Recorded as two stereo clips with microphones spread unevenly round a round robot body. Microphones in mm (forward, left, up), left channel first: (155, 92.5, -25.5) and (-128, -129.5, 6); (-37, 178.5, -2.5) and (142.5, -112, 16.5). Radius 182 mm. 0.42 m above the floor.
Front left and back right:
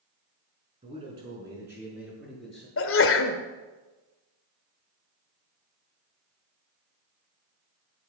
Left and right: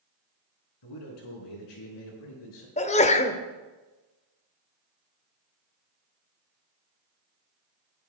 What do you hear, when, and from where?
0.8 s a man speaking: 145° left, 4 m; by 2.7 s 125° left, 5.5 m
2.8 s a sneeze: 65° left, 1.0 m